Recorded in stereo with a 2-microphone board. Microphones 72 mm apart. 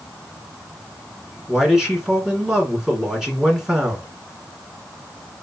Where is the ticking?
I don't hear ticking.